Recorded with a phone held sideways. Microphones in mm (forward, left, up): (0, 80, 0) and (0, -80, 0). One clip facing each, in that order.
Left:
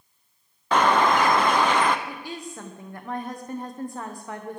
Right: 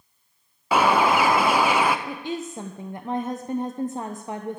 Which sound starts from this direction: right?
A woman speaking, at 2.1 s.